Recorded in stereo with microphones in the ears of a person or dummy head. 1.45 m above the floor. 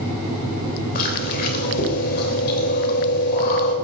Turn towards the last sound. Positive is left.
turn(degrees=55)  # may be behind; listen again after turning